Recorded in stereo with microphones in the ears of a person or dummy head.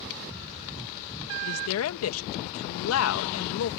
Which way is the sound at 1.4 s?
90° left.